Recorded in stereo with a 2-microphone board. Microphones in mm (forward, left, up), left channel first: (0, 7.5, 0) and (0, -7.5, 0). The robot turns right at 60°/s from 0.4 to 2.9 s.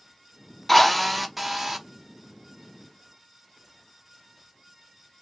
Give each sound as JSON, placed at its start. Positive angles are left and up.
{"t": 0.7, "sound": "a drill", "azimuth_deg": 160, "distance_m": 0.8}